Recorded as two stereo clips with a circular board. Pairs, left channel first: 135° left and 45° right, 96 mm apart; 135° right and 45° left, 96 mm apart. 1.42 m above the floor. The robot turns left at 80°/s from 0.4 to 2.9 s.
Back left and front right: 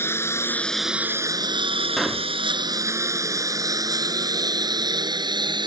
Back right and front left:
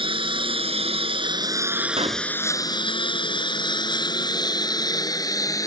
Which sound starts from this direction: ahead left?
A pop, at 2.0 s.